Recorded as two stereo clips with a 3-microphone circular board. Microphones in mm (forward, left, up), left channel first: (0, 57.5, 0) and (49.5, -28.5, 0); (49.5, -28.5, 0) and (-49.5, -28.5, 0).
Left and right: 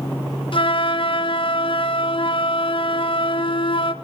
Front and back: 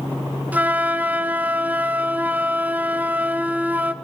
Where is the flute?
105° left, 1.3 m.